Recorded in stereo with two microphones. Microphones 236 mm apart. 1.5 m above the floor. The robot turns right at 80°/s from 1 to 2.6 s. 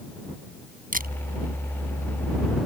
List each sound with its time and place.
0.9 s a camera shutter: 35° right (ahead or behind); by 1.1 s 45° right (ahead or behind)